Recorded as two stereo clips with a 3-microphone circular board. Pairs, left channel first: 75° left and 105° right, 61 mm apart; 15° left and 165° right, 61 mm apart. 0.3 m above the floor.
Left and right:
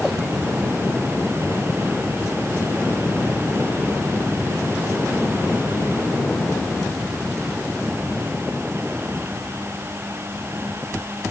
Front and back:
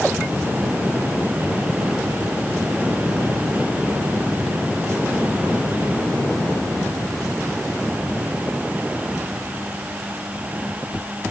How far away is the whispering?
No whispering in this recording.